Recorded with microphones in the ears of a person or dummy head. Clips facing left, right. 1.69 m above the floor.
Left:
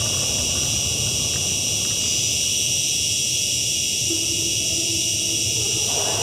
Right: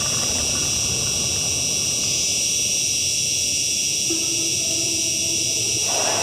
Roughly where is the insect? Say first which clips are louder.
Even; centre.